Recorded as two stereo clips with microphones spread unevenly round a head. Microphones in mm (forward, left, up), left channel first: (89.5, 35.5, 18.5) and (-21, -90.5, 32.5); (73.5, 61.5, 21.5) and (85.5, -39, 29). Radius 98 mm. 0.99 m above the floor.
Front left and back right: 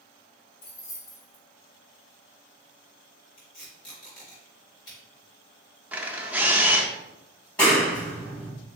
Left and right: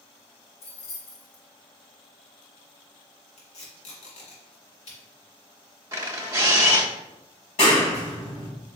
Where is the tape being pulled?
120° left, 2 m.